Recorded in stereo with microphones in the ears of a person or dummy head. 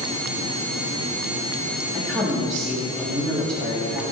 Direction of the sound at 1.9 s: 5° left (ahead or behind).